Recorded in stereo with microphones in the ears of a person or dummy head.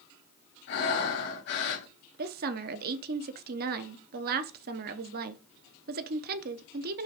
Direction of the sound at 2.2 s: 50° right (ahead or behind).